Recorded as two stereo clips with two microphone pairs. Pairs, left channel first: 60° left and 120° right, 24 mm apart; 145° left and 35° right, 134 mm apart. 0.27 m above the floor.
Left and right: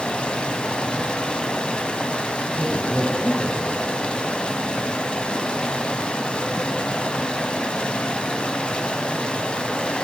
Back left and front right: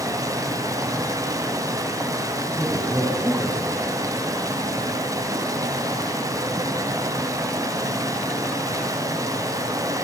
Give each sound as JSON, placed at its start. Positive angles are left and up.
{"t": 0.0, "sound": "running water", "azimuth_deg": 25, "distance_m": 1.6}
{"t": 2.5, "sound": "a man speaking", "azimuth_deg": 35, "distance_m": 3.5}